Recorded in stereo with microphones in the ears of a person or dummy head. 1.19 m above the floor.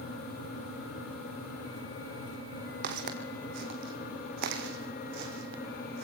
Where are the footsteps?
55° right (ahead or behind), 2.5 m; by 6.0 s 50° right (ahead or behind), 2.5 m.